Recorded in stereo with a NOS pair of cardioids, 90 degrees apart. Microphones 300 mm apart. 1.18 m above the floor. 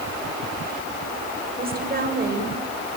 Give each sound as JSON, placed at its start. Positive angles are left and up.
{"t": 1.6, "sound": "a woman speaking", "azimuth_deg": -30, "distance_m": 7.0}